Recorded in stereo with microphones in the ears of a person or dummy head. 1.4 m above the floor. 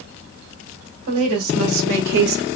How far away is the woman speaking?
About 1.9 m.